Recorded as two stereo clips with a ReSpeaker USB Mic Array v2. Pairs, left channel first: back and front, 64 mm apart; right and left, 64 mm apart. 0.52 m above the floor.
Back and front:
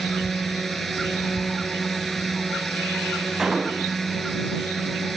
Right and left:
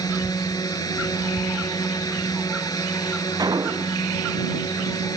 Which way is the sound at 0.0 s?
95° right.